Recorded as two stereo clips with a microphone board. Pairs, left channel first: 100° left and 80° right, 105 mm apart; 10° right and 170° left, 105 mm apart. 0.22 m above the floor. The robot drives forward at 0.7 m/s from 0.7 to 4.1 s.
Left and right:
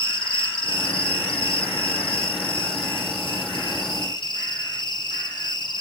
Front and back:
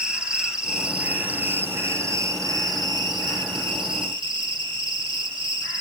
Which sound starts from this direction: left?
An insect, at 0.0 s.